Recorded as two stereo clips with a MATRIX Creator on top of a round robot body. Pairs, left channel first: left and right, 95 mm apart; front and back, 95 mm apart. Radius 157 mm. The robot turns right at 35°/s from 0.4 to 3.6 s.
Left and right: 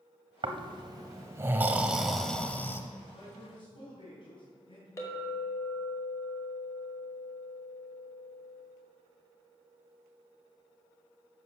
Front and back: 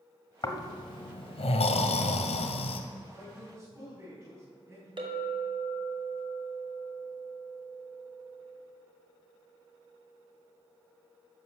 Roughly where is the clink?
Behind left.